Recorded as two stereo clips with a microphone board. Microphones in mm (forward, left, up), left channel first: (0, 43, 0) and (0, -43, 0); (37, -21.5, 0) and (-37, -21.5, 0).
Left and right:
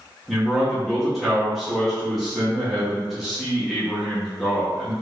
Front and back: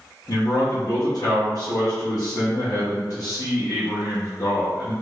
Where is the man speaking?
5° right, 0.9 m.